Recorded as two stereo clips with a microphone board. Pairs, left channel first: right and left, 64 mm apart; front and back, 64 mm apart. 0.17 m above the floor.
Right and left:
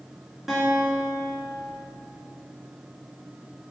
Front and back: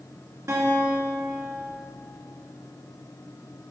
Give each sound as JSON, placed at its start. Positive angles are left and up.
{"t": 0.5, "sound": "a guitar", "azimuth_deg": 175, "distance_m": 1.9}